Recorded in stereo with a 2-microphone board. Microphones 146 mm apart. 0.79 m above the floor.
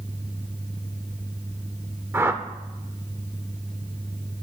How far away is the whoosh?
About 0.8 m.